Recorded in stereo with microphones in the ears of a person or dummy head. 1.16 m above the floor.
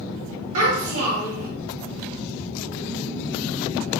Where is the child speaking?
75° right (ahead or behind), 1.7 m.